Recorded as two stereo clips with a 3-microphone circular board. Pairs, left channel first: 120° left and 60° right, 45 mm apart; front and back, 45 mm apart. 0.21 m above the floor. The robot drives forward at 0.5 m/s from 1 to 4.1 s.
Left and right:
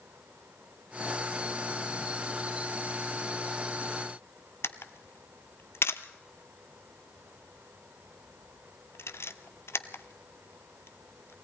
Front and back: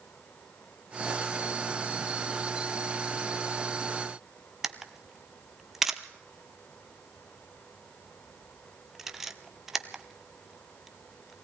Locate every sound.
4.6 s a camera shutter: 95° left, 0.8 m